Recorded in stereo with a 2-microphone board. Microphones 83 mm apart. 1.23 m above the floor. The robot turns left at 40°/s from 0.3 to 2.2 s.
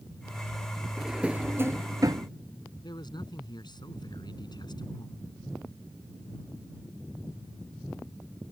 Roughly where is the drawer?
Centre.